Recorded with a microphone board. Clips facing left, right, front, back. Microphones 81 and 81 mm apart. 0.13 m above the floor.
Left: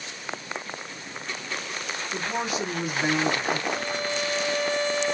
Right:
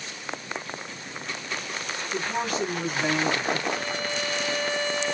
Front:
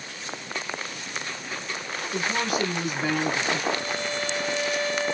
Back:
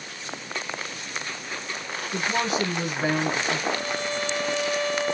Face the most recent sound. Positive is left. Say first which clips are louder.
# left 1 dB, back 1 dB
turn(degrees=-165)